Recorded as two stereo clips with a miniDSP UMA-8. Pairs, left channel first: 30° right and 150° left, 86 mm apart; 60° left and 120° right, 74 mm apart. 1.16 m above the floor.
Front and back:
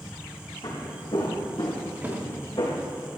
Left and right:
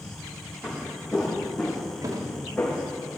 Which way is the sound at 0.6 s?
35° right.